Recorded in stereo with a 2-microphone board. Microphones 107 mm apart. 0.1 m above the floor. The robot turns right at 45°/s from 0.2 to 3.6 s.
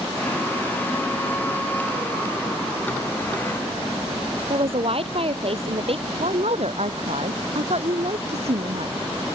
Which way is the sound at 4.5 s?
60° right (ahead or behind).